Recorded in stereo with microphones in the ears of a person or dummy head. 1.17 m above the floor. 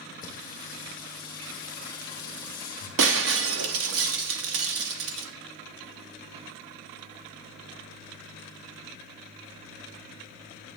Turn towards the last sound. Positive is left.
turn(degrees=-70)  # may be behind; listen again after turning